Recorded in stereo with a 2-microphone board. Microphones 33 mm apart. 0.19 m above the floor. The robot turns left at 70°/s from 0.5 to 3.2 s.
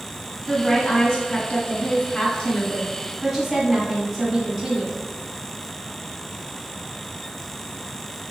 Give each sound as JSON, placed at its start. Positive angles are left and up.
{"t": 0.5, "sound": "a woman speaking", "side_deg": -5, "distance_m": 1.3}